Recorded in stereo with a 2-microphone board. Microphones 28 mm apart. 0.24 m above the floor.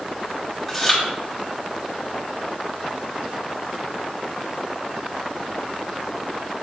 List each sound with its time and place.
0.7 s chewing: 5° left (ahead or behind), 1.2 m